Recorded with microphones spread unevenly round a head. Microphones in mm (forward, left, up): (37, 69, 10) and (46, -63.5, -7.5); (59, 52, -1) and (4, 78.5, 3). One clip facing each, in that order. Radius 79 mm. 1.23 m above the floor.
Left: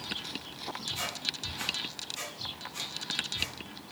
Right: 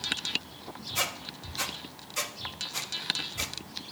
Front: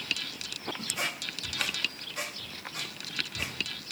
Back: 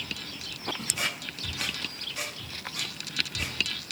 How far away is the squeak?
About 1.3 m.